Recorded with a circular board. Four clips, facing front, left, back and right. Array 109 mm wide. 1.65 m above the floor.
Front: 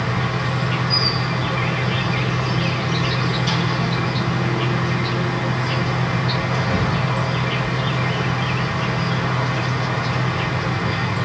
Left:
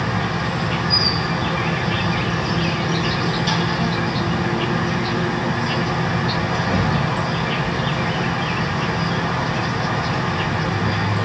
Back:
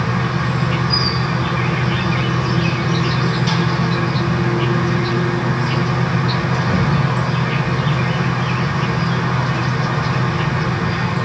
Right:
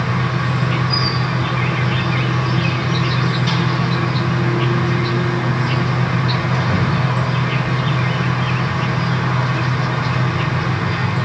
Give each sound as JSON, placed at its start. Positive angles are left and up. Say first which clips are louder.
{"t": 0.0, "sound": "an insect", "louder": "right 2 dB, back 3 dB", "azimuth_deg": -125, "distance_m": 2.0}